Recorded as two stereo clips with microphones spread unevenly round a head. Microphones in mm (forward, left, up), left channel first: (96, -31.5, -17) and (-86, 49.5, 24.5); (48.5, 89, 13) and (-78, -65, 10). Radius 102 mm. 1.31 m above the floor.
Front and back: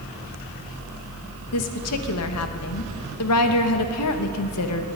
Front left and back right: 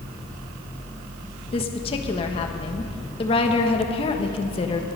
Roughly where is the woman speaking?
Ahead.